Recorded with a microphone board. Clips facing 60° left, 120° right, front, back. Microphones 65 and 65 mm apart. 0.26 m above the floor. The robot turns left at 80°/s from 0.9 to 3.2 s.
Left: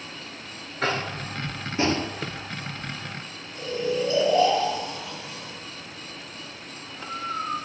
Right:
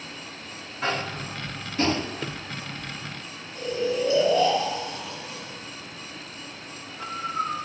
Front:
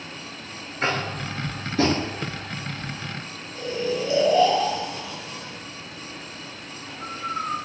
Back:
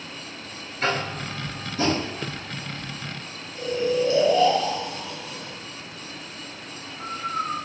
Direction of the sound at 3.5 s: 65° right.